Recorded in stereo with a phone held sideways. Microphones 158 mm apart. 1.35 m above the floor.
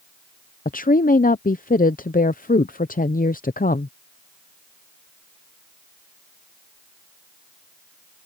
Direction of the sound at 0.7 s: 60° left (ahead or behind).